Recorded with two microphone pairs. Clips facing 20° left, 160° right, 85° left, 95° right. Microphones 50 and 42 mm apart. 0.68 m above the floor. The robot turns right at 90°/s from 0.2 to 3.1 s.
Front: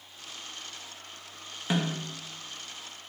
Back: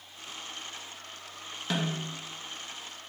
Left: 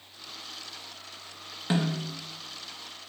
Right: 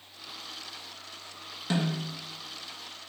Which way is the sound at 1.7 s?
60° left.